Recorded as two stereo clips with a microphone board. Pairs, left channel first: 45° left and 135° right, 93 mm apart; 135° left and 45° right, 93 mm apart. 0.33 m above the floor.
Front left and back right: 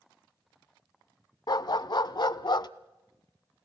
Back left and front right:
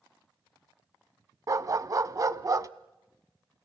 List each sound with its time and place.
1.5 s a dog barking: 5° left, 0.6 m